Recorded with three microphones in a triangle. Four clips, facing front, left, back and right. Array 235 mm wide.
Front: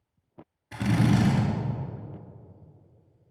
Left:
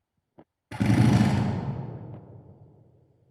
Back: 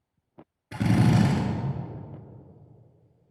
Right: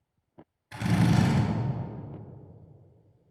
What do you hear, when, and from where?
0.7 s a drill: 120° left, 3.5 m